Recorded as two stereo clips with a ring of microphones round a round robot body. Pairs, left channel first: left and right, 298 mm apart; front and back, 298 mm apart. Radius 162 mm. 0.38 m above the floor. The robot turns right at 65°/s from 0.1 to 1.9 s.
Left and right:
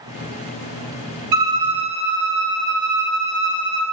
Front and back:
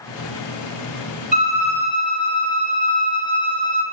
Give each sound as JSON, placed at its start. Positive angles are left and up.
{"t": 1.3, "sound": "a violin", "azimuth_deg": -115, "distance_m": 0.5}